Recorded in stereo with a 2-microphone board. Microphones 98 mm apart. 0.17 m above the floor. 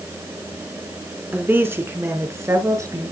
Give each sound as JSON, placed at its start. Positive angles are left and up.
{"t": 1.3, "sound": "a woman speaking", "side_deg": -20, "distance_m": 1.6}